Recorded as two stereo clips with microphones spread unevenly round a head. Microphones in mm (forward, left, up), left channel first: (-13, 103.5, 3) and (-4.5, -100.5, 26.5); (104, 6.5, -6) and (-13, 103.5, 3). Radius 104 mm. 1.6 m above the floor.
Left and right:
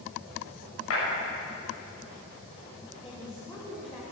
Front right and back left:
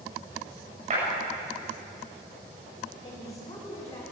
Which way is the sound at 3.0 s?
25° left.